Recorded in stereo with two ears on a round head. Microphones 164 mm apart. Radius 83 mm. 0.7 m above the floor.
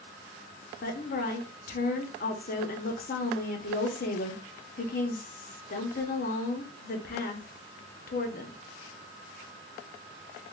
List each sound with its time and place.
0.8 s a woman speaking: 50° left (ahead or behind), 0.7 m